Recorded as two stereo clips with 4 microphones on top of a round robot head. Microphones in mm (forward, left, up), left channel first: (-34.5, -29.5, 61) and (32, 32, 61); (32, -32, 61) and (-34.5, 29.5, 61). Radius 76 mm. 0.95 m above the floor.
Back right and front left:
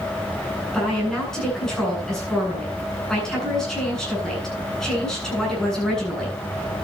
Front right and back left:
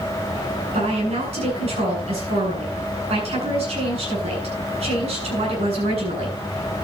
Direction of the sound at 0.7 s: 140° left.